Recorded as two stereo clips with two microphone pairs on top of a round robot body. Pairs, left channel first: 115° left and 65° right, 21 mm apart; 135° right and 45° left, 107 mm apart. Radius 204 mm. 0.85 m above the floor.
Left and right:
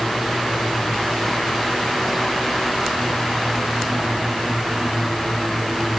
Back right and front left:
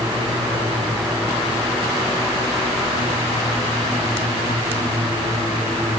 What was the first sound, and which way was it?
Only background noise.